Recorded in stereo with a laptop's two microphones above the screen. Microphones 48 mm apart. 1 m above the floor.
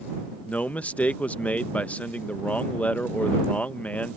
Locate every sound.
0.4 s a man speaking: 30° left (ahead or behind)